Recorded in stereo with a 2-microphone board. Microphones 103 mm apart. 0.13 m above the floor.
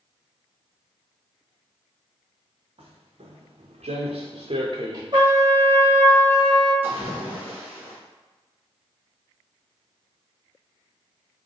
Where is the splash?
20° right (ahead or behind), 1.1 m.